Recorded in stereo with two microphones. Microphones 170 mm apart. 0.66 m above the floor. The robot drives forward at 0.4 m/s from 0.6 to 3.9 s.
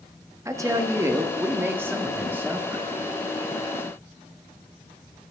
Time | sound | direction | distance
0.5 | a woman speaking | 20° right (ahead or behind) | 0.9 m